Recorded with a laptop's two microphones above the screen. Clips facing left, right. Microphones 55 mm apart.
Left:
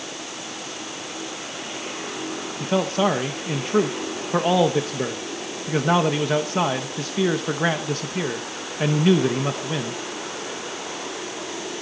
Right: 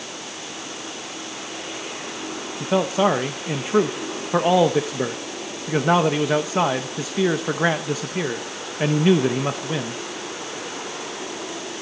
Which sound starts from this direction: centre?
A man speaking, at 2.6 s.